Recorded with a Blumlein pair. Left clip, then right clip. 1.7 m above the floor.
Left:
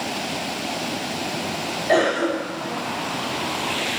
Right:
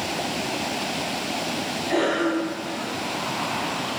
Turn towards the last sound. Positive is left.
turn(degrees=45)